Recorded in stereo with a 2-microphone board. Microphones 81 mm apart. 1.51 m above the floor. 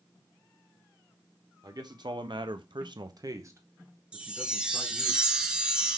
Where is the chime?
15° right (ahead or behind), 1.1 m.